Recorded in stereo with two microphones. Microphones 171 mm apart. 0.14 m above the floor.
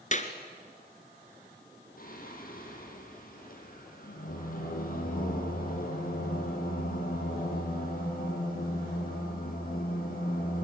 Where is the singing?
55° left (ahead or behind), 4.5 m.